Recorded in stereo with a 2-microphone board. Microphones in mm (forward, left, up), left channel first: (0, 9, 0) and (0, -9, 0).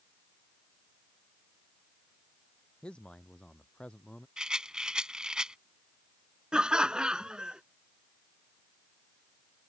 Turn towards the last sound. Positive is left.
turn(degrees=-55)  # may be behind; listen again after turning